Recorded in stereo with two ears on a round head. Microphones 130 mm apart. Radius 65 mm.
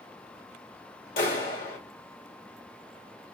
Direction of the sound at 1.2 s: 65° left (ahead or behind).